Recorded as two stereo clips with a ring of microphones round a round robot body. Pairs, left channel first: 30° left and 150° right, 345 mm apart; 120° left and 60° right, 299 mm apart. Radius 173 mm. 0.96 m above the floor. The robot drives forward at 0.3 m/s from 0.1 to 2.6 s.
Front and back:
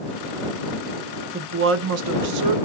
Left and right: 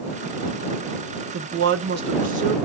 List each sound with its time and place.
1.3 s a woman speaking: 90° right, 0.6 m; by 2.5 s 130° right, 0.7 m